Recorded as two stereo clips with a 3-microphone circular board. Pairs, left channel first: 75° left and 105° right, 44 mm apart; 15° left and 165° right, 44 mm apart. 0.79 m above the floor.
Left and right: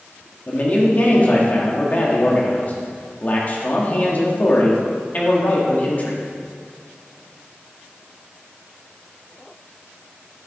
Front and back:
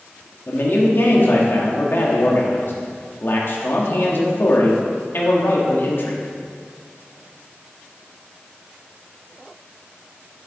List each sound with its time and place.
0.5 s a man speaking: 30° left, 1.5 m